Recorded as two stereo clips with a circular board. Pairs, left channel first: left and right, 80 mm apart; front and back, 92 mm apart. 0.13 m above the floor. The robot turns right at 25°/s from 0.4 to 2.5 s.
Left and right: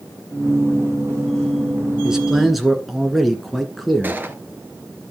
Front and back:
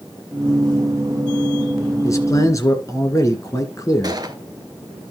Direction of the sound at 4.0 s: 150° right.